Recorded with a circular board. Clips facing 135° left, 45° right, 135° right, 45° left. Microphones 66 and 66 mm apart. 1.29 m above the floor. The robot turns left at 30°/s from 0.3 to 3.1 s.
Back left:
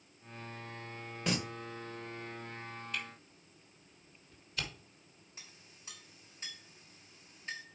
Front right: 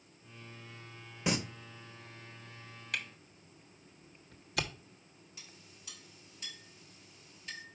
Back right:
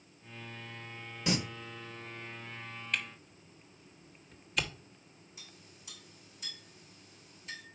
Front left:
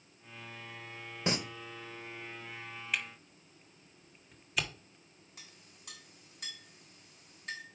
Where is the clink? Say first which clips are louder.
Even, even; 75° left, 4.5 m.